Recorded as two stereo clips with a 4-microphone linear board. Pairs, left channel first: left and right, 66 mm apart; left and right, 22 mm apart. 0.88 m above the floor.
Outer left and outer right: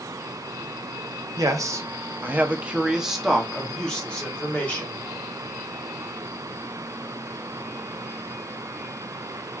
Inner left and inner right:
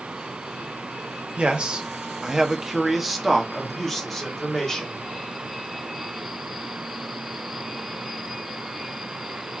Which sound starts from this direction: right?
A man speaking, at 1.4 s.